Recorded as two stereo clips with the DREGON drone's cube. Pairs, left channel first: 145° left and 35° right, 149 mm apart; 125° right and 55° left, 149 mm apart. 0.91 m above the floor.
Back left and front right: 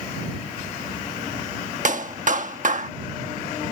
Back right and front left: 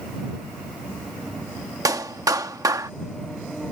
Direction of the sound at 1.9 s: 10° right.